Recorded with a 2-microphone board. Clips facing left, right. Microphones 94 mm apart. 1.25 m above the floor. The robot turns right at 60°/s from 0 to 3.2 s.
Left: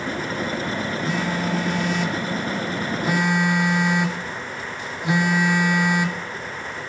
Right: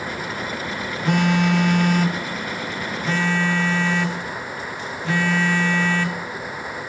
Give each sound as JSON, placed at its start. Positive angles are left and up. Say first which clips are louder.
{"t": 1.1, "sound": "a phone buzzing", "louder": "right 8 dB", "azimuth_deg": -110, "distance_m": 0.7}